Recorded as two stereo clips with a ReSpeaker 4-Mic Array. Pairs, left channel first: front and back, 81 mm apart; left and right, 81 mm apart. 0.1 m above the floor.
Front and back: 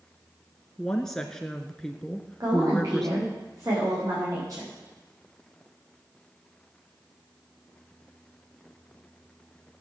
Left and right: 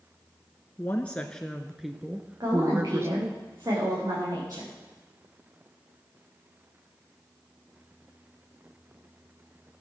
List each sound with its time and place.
0.8 s a woman speaking: 70° left, 1.3 m; by 3.4 s 85° right, 1.5 m
2.4 s a woman speaking: 135° right, 10 m